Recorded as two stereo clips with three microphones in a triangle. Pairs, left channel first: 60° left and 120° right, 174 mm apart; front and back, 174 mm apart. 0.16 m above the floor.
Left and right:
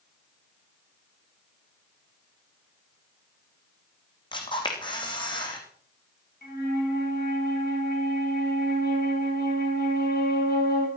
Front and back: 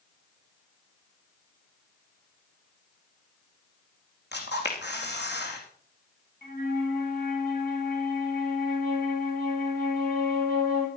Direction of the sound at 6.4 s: 30° left.